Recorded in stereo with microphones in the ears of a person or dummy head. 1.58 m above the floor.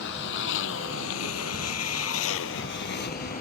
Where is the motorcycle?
65° left (ahead or behind); by 3.4 s 45° left (ahead or behind).